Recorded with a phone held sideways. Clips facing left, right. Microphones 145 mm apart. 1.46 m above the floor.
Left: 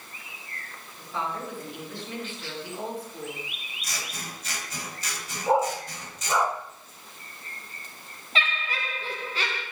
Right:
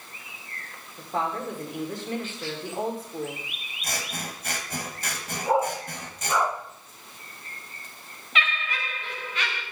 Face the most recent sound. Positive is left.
turn(degrees=30)  # may be behind; listen again after turning